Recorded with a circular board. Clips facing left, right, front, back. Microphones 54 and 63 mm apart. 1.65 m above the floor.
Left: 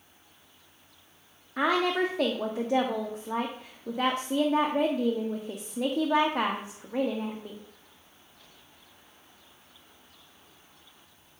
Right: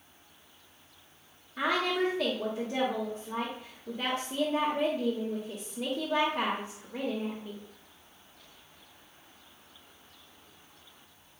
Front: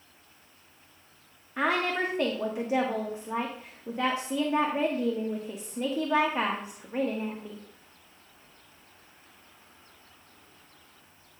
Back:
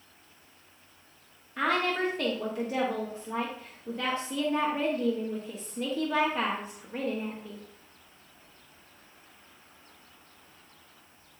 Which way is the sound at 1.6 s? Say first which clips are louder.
Left 3 dB, even; 70° left.